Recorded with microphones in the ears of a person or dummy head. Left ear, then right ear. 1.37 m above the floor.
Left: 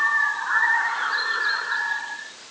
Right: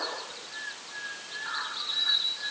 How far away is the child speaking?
I don't hear a child speaking.